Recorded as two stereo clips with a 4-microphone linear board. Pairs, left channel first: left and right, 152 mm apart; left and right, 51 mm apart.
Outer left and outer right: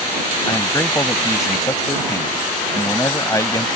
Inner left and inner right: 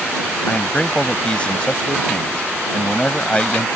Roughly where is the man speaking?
Left.